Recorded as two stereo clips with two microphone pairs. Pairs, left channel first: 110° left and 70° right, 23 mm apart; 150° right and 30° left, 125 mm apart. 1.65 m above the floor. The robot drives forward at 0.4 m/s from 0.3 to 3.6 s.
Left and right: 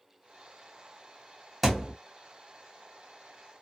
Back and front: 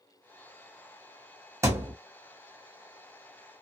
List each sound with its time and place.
1.6 s a thud: 15° left, 1.0 m; by 1.9 s 20° left, 1.0 m